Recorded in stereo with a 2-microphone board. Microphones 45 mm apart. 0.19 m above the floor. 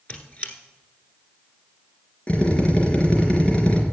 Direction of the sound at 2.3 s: 25° left (ahead or behind).